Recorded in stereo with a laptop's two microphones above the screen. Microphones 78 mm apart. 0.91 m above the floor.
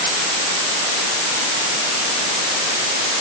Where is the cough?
I don't hear a cough.